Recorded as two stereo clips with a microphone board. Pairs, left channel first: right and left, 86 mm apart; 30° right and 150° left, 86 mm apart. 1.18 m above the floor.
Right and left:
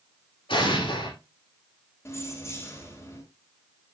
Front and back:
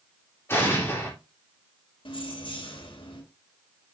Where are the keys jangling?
35° right, 3 m.